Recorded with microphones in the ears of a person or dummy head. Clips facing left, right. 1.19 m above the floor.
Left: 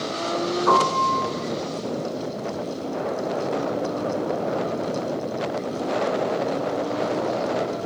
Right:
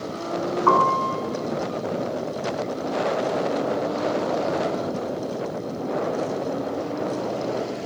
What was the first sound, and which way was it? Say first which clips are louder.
A piano: right 1 dB; 70° right (ahead or behind).